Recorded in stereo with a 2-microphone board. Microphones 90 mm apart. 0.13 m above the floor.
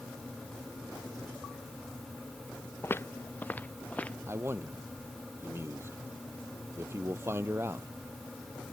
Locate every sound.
2.8 s footsteps: 25° left (ahead or behind); by 4.2 s 15° left (ahead or behind)
4.3 s a man speaking: 30° right (ahead or behind)